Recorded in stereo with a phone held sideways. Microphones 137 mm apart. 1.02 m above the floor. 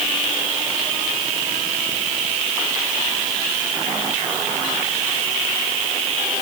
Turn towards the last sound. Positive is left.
No sound to turn to.